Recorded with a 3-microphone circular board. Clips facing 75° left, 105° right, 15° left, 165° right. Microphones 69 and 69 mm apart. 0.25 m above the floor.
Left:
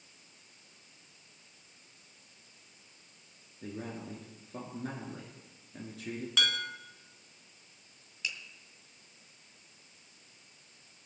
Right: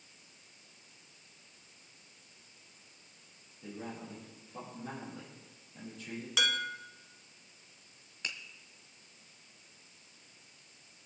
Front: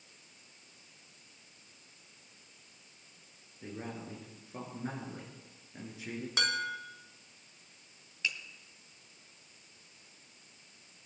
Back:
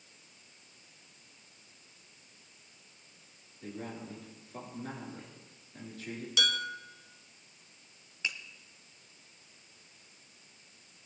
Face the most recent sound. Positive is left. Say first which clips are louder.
# left 2 dB, front 1 dB
turn(degrees=-110)